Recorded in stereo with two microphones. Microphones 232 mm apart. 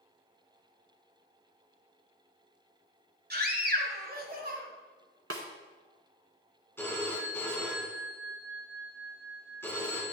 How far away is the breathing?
No breathing in this recording.